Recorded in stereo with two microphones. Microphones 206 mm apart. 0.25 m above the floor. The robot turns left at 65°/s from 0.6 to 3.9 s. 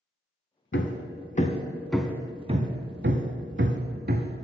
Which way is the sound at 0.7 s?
70° left (ahead or behind).